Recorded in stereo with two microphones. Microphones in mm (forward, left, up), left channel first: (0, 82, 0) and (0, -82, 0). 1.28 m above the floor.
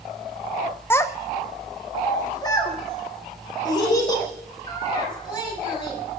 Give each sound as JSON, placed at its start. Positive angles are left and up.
{"t": 0.9, "sound": "a child speaking", "side_deg": 15, "distance_m": 0.5}